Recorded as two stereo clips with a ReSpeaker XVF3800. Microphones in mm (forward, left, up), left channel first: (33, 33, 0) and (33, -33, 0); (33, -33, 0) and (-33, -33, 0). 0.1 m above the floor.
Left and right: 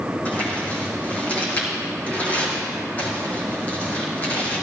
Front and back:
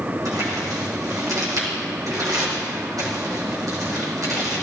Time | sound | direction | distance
0.2 | crumpling | 155° left | 4.5 m